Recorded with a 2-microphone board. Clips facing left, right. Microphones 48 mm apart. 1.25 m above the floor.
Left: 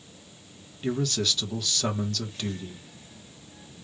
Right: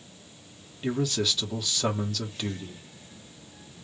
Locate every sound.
0.8 s a man speaking: 5° right (ahead or behind), 1.3 m